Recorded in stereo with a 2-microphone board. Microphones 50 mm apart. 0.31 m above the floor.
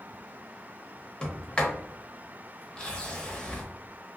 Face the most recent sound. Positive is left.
turn(degrees=20)  # may be behind; listen again after turning